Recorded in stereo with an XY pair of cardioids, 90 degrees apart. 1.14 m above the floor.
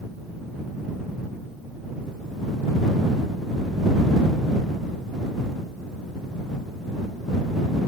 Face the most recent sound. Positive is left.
No sound to turn to.